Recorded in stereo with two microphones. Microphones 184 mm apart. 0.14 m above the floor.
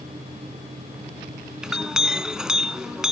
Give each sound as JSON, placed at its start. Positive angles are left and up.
{"t": 1.6, "sound": "a clink", "side_deg": -5, "distance_m": 0.6}